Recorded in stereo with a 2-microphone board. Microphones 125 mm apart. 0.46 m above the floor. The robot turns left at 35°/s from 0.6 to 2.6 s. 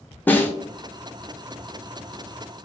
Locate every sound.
0.3 s a snare drum: 15° left (ahead or behind), 0.5 m